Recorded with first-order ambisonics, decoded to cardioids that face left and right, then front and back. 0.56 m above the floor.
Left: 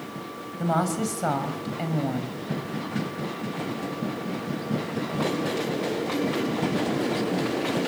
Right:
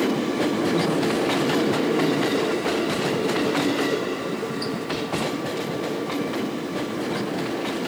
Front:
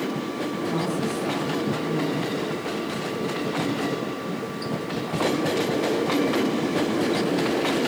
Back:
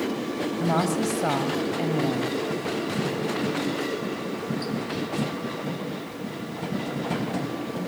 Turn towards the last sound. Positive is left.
turn(degrees=130)